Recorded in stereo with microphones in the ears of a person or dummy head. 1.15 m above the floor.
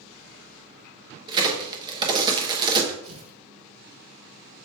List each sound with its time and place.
1.3 s a crack: 20° right (ahead or behind), 1.0 m
3.0 s tearing paper: 70° right (ahead or behind), 2 m